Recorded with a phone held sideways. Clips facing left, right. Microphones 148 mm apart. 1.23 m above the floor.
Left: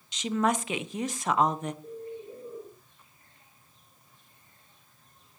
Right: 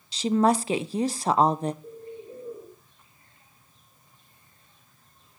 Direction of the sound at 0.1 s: 30° right (ahead or behind).